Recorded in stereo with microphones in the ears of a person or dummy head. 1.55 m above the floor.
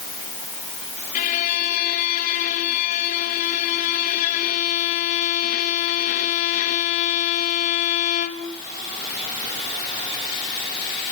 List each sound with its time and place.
1.1 s a violin: 45° left (ahead or behind), 2.5 m